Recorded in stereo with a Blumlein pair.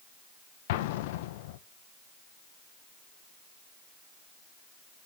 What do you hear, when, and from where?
0.7 s an explosion: 50° left, 0.6 m